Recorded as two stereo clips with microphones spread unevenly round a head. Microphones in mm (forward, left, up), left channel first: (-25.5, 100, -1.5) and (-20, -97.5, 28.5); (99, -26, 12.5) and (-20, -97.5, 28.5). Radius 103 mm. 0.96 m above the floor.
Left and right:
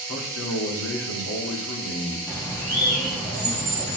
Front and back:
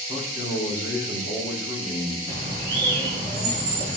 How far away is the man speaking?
About 2 m.